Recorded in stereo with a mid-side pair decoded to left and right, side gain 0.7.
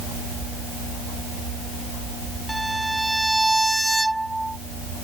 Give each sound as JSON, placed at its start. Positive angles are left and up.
{"t": 2.5, "sound": "a violin", "azimuth_deg": -5}